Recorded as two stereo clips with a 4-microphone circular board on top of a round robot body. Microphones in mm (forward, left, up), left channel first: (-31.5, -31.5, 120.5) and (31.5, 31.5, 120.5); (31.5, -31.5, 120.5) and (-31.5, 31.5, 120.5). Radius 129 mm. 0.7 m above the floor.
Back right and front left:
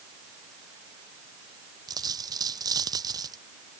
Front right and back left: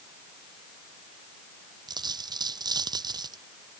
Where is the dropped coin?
95° left.